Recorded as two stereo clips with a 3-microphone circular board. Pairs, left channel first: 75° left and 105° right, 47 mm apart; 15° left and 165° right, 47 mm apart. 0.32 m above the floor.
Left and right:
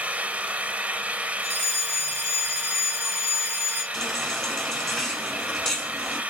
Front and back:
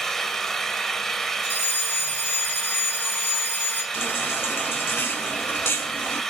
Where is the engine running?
60° right, 1.3 m.